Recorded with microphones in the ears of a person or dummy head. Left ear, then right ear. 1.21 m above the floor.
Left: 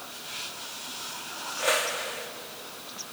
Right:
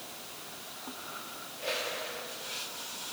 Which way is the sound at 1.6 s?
50° left (ahead or behind).